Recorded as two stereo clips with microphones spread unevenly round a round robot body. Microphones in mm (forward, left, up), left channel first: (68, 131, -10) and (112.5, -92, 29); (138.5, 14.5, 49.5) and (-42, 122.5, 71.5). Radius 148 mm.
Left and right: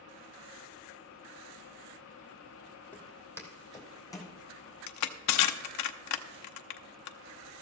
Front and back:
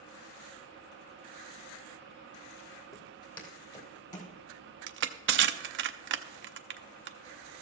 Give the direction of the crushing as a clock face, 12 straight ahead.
8 o'clock.